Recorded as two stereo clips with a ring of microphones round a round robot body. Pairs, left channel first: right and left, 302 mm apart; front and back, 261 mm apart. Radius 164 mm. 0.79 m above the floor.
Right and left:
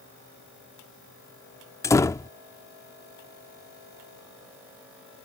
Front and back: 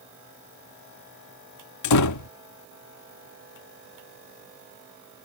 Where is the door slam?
10° right.